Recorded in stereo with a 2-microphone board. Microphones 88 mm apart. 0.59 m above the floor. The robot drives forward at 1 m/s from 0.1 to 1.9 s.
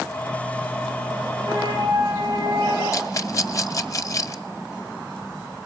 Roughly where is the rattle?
Left.